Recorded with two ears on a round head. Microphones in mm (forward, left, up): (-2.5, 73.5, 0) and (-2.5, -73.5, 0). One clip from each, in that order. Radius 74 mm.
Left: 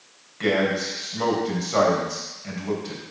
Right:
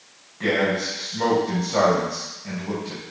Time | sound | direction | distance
0.4 | a man speaking | 55° left (ahead or behind) | 3 m